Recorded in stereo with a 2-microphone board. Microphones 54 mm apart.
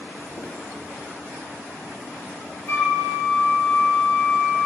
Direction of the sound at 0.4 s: 45° left (ahead or behind).